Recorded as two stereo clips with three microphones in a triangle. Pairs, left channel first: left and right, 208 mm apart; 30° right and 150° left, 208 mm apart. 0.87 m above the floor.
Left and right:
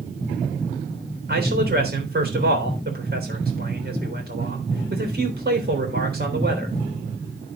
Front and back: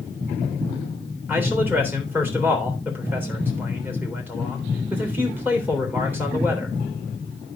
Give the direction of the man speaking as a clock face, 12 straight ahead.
4 o'clock.